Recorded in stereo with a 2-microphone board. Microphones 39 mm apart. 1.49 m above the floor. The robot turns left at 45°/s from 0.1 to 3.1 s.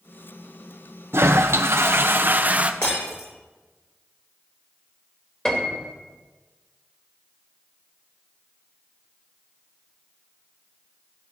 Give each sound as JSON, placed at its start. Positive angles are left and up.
{"t": 1.1, "sound": "a toilet flushing", "azimuth_deg": -75, "distance_m": 0.9}
{"t": 2.8, "sound": "breaking glass", "side_deg": 75, "distance_m": 8.5}
{"t": 5.5, "sound": "a piano", "side_deg": 20, "distance_m": 2.5}